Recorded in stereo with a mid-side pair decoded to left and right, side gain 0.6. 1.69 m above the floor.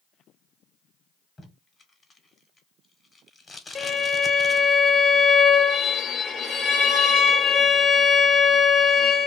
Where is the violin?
35° left, 0.7 m.